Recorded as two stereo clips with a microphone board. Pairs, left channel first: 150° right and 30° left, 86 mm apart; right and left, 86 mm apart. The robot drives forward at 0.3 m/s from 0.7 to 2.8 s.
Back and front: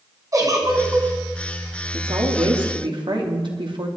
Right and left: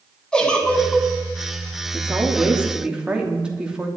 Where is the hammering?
No hammering in this recording.